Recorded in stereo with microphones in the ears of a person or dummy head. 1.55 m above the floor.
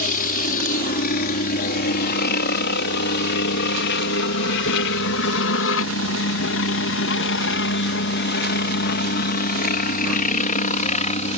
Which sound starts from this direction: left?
A helicopter, at 0.0 s.